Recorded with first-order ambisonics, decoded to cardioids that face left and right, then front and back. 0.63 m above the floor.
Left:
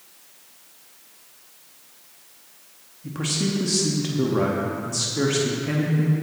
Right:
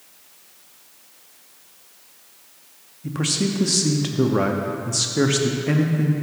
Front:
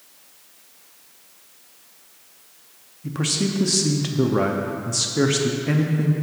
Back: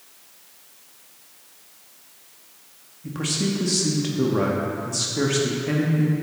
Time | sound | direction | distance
3.0 | a man speaking | 50° right | 0.7 m